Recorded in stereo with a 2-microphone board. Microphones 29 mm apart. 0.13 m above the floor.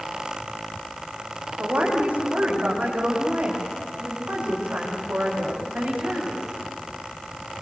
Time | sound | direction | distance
1.6 | a woman speaking | 70° right (ahead or behind) | 9.5 m